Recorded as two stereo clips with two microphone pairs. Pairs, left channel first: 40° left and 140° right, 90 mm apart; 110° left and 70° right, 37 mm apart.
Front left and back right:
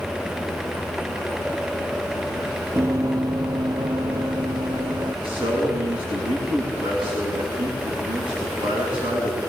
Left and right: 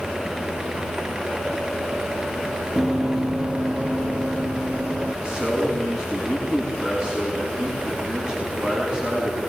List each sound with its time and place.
2.8 s running footsteps: 150° right, 0.7 m; by 5.1 s 120° right, 2 m
5.2 s a man speaking: 140° right, 7.5 m